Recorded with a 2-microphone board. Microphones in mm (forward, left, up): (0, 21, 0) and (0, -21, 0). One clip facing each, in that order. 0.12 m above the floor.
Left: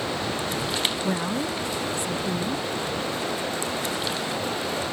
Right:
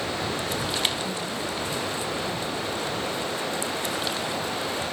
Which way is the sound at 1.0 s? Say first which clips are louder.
Left 4 dB; 65° left (ahead or behind).